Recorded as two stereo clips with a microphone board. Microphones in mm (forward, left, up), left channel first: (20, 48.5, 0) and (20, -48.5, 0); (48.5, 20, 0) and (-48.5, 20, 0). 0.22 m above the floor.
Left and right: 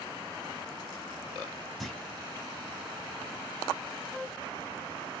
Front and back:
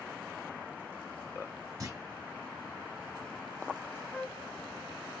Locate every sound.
1.8 s a clunk: straight behind, 1.0 m
4.1 s a flute: 50° right, 0.8 m